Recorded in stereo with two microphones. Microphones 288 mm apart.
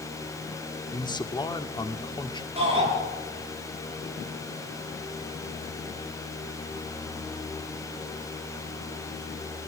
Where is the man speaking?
15° left (ahead or behind), 1.6 m.